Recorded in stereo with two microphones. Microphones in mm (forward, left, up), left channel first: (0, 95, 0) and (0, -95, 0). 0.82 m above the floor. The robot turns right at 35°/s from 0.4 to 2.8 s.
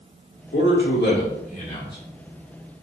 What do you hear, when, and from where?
0.5 s a man speaking: 105° left, 1.9 m; by 2.0 s 160° left, 1.9 m